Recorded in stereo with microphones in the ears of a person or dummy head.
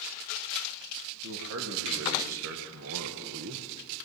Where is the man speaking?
85° right, 2.5 m; by 3.7 s 55° right (ahead or behind), 0.9 m.